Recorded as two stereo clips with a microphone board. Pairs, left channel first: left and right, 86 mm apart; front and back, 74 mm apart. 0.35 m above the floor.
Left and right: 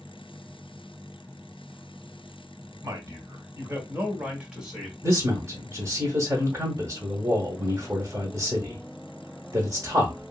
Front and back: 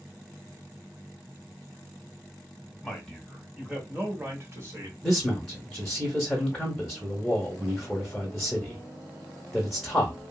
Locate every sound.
2.8 s a man speaking: 80° right, 1.2 m; by 4.9 s 175° right, 1.3 m
5.0 s a man speaking: 85° right, 0.9 m